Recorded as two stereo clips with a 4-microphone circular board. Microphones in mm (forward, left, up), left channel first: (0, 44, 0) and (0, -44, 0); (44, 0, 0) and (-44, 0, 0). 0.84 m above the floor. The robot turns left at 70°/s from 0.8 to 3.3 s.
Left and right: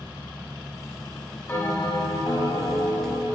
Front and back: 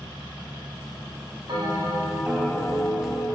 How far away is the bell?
About 4 m.